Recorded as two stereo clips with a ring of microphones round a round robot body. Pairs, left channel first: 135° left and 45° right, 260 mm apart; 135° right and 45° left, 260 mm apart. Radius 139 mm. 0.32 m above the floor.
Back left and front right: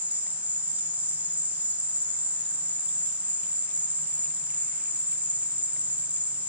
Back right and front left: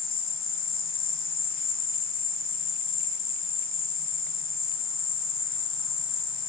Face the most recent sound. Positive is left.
turn(degrees=-125)